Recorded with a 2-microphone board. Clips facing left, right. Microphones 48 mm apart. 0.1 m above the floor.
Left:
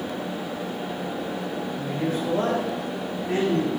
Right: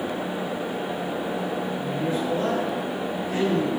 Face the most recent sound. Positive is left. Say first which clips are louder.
# left 2 dB
turn(degrees=45)  # may be behind; listen again after turning